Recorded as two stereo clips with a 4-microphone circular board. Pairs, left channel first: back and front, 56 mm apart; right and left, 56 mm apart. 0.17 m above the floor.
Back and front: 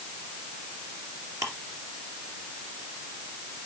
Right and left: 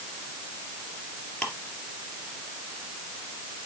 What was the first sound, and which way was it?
Ticking, 20° right.